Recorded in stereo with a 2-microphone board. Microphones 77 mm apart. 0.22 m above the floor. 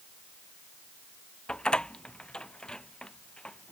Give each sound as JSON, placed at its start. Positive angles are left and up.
{"t": 1.5, "sound": "a door slam", "side_deg": 10}